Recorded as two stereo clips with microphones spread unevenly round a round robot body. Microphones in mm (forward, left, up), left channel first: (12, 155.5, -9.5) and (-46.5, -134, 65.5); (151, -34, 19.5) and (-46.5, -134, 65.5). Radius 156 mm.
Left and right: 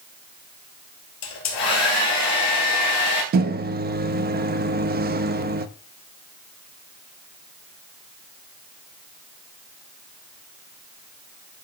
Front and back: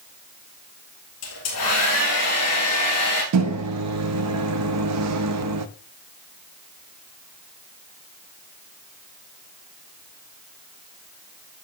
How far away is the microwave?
About 0.5 m.